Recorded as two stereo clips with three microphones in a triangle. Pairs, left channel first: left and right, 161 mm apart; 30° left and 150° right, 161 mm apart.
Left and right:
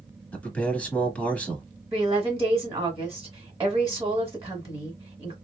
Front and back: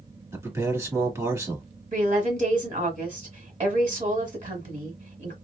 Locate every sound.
0.3 s a man speaking: 160° left, 1.4 m
1.9 s a woman speaking: 150° right, 1.4 m